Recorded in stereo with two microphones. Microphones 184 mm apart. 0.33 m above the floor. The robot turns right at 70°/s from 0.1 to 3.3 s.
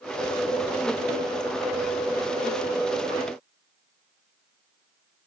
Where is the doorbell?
No doorbell in this recording.